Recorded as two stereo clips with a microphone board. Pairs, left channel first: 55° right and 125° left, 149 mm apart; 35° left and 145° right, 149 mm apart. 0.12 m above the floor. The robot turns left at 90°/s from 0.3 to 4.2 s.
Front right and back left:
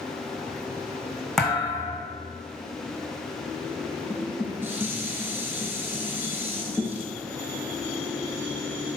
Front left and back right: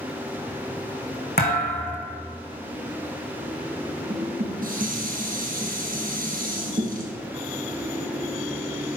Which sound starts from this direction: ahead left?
A thud, at 1.4 s.